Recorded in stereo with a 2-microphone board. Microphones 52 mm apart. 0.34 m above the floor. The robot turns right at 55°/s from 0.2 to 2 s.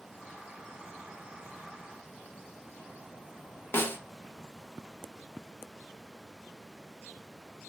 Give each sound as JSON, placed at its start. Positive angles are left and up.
{"t": 3.7, "sound": "a snare drum", "side_deg": 45, "distance_m": 0.6}